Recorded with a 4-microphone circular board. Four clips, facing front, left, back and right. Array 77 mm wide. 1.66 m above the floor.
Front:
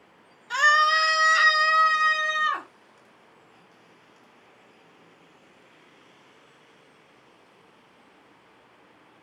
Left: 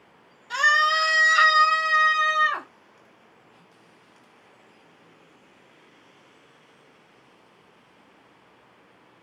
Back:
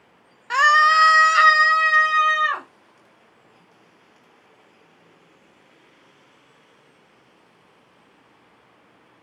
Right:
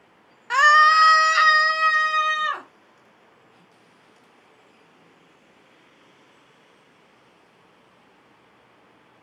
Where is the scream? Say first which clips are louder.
Right 6 dB, back 5 dB; 130° right, 1.1 m; by 2.7 s 165° right, 3 m.